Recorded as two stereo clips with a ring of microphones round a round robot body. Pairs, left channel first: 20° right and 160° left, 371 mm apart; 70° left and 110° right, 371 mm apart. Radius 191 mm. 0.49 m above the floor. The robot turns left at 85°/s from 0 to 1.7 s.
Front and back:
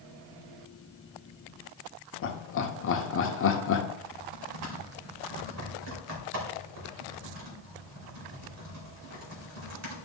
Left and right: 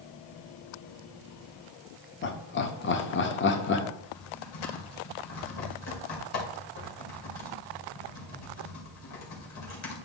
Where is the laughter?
20° left, 1.0 m.